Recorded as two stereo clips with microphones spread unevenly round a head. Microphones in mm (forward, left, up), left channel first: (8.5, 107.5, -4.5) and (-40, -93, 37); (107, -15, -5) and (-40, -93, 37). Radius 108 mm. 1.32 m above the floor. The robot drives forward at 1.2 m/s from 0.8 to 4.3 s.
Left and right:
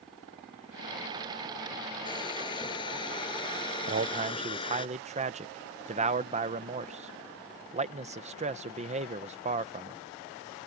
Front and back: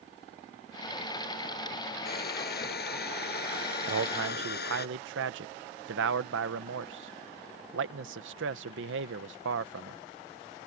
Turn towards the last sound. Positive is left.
turn(degrees=-165)